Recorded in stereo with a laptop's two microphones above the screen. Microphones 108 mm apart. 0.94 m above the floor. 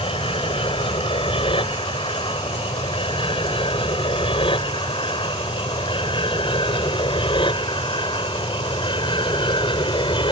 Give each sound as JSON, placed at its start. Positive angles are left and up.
{"t": 0.0, "sound": "an aircraft", "side_deg": 55}